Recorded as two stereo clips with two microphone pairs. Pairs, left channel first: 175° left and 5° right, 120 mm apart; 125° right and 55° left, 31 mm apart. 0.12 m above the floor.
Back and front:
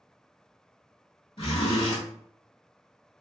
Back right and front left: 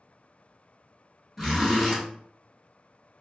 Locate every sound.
1.4 s a zipper: 145° left, 1.4 m